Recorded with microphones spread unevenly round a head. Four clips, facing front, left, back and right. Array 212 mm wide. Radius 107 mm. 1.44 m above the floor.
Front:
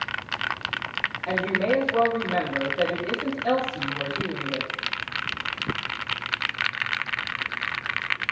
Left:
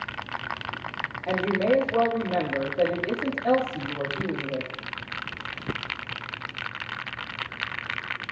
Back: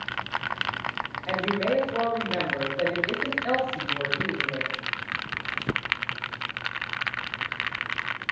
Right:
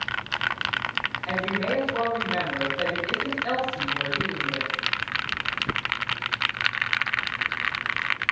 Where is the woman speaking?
75° left, 3.5 m.